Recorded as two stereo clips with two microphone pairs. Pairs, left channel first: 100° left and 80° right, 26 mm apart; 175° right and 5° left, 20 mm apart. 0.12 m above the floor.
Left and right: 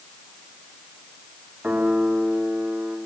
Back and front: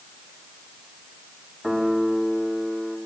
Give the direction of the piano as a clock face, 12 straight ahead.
2 o'clock.